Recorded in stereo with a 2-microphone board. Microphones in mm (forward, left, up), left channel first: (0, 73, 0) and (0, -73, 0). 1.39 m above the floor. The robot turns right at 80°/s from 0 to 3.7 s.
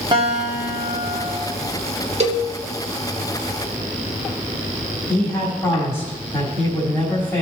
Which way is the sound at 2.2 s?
50° right (ahead or behind).